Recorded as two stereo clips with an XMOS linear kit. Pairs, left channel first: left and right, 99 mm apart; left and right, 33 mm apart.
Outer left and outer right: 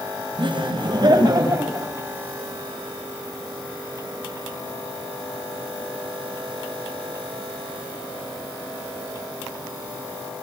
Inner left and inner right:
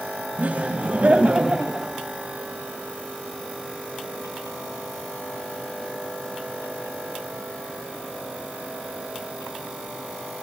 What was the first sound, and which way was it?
Laughter, 55° right (ahead or behind).